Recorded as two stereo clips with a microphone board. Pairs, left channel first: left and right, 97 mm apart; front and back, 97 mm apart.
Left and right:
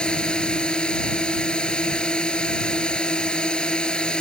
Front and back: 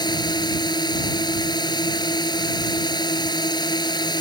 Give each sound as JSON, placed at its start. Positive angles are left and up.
{"t": 0.0, "sound": "a drone", "azimuth_deg": 15}